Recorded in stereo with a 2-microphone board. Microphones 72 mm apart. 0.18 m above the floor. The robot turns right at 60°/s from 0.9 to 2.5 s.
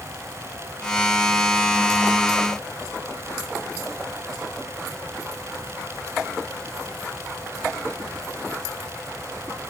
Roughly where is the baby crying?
I don't hear a baby crying.